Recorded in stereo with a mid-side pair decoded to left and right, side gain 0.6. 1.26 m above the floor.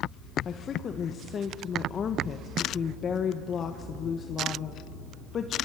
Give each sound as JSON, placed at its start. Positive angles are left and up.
{"t": 0.5, "sound": "a woman speaking", "azimuth_deg": 40, "distance_m": 1.4}